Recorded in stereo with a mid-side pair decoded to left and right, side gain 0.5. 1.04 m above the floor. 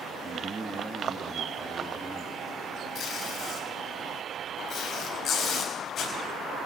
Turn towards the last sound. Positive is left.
turn(degrees=55)